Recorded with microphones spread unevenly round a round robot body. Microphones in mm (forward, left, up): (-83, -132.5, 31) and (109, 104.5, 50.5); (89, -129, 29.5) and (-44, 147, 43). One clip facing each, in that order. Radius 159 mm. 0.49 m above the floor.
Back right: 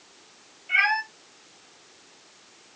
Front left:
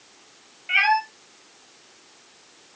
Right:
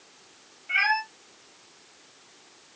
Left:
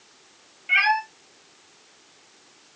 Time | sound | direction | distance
0.7 | a cat meowing | 75° left | 6 m